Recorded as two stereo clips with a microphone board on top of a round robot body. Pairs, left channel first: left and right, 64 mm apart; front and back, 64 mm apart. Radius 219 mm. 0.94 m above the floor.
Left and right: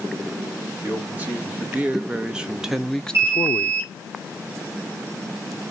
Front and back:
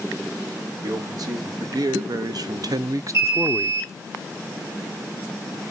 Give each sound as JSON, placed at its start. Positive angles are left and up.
{"t": 0.8, "sound": "a man speaking", "azimuth_deg": -155, "distance_m": 2.5}
{"t": 3.1, "sound": "an alarm", "azimuth_deg": -135, "distance_m": 5.0}